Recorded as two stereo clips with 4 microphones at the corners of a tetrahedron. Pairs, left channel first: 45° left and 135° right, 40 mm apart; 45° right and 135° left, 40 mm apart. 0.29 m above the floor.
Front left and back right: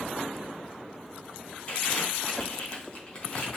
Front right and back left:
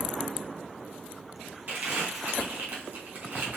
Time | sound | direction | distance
1.7 | crumpling | 95° left | 3 m